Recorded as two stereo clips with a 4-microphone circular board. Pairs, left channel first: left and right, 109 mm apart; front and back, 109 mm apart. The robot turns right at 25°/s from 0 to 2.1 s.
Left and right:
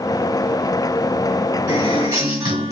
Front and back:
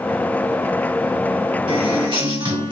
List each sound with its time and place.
1.7 s a guitar: 155° right, 2 m; by 2.7 s 145° right, 2 m